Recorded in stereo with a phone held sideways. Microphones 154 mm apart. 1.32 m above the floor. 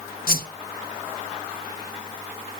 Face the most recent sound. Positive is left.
turn(degrees=70)  # may be behind; listen again after turning